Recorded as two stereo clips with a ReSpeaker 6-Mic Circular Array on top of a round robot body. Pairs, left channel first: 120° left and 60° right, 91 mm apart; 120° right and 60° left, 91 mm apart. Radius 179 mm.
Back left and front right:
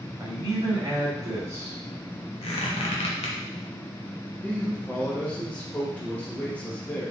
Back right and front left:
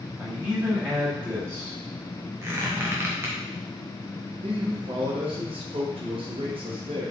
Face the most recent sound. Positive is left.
turn(degrees=45)